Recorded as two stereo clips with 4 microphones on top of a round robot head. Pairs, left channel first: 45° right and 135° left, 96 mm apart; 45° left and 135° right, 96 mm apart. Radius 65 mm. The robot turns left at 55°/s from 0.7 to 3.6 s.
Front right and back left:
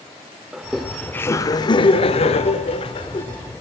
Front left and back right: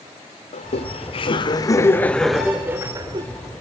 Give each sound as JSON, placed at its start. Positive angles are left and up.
{"t": 0.5, "sound": "laughter", "azimuth_deg": 45, "distance_m": 1.8}